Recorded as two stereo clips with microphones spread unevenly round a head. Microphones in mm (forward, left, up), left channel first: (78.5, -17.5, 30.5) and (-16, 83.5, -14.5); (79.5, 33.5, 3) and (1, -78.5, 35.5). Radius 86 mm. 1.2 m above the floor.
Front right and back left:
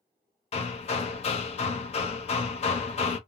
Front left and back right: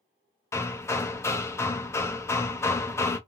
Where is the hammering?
20° right, 0.6 m.